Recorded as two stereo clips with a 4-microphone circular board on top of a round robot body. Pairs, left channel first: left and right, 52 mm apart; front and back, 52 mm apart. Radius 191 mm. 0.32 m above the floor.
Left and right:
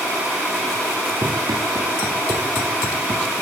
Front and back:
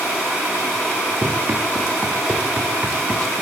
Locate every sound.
1.2 s running footsteps: 125° right, 7.5 m; by 3.3 s 115° right, 5.5 m